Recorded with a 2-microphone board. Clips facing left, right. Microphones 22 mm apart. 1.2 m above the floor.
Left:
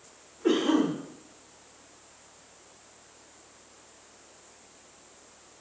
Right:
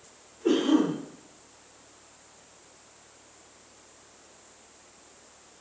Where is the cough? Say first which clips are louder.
Right 1 dB; 40° left (ahead or behind), 1.2 m.